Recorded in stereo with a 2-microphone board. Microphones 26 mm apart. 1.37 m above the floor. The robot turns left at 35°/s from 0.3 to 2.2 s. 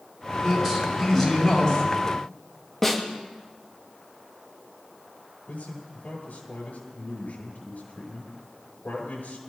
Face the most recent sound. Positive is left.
turn(degrees=80)